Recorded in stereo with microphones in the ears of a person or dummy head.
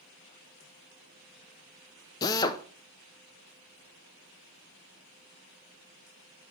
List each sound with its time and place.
2.2 s a drill: 20° left (ahead or behind), 0.7 m